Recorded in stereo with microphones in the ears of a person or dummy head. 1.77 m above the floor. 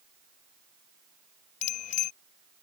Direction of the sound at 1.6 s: 40° left (ahead or behind).